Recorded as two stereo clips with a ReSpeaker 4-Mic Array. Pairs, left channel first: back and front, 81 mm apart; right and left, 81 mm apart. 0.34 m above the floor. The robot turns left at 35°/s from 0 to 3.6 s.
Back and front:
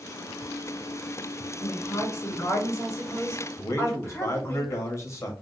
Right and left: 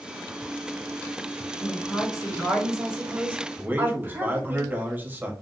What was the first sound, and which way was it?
A woman speaking, 155° right.